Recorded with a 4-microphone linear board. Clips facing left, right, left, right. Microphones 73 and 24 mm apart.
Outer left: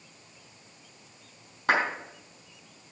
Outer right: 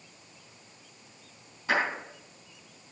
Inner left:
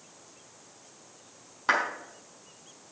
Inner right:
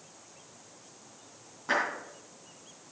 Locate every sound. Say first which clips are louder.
1.7 s a clap: outer left 3 dB, inner left 3 dB; 65° left (ahead or behind), 4.5 m